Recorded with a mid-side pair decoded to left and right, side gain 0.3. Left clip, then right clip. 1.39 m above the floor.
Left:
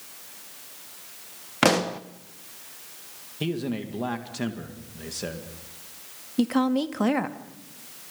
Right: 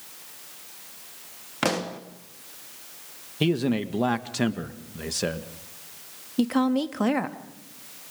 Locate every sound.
1.6 s a pop: 50° left, 1.2 m
3.4 s a man speaking: 60° right, 1.9 m
6.4 s a woman speaking: straight ahead, 1.8 m